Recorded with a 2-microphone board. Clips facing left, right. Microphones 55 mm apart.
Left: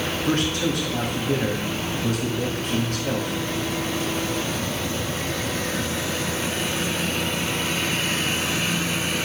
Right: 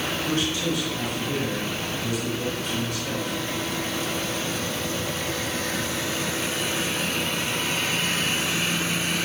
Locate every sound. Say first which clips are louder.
0.2 s a man speaking: left 4 dB; 45° left (ahead or behind), 2 m